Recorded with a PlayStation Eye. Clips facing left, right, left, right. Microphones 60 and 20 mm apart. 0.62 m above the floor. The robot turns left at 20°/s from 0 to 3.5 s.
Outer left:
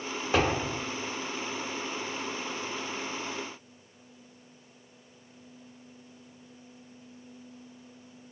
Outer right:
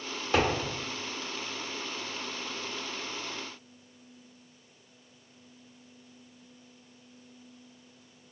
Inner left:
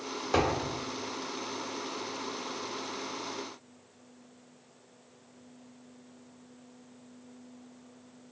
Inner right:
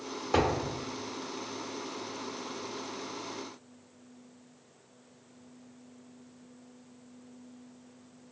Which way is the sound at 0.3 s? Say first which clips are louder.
Even, even; 15° left (ahead or behind).